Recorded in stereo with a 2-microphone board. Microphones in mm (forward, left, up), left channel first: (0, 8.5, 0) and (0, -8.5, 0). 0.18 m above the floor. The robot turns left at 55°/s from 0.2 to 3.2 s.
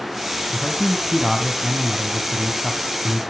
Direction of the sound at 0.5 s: 15° left.